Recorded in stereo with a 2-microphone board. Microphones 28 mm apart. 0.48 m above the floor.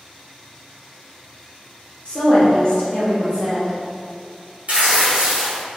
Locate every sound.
2.0 s a woman speaking: 35° left (ahead or behind), 1.0 m
4.7 s tearing paper: 60° right (ahead or behind), 0.8 m